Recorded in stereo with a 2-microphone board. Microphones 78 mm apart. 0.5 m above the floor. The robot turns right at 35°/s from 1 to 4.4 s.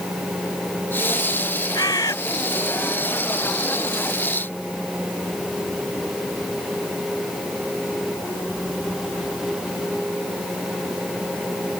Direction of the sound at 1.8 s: 65° left (ahead or behind).